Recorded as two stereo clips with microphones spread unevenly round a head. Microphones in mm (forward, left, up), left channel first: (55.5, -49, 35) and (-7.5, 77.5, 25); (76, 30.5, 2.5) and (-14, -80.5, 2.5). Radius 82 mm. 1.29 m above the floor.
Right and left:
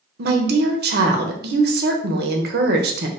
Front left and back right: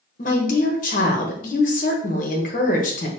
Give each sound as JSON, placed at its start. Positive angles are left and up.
{"t": 0.2, "sound": "a woman speaking", "azimuth_deg": 100, "distance_m": 0.8}